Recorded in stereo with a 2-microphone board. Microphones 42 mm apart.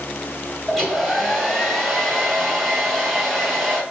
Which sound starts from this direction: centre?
A hair dryer, at 0.7 s.